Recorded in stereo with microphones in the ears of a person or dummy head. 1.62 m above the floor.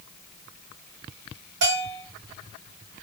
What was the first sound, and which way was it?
A bell, 65° right (ahead or behind).